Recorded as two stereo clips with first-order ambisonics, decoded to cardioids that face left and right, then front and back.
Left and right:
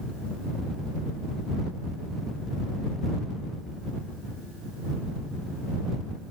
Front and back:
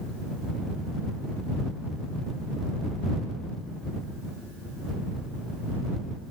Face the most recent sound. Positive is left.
No sound to turn to.